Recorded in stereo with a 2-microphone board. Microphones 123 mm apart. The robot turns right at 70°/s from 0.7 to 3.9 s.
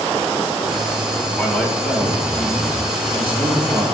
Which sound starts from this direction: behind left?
A man speaking, at 1.4 s.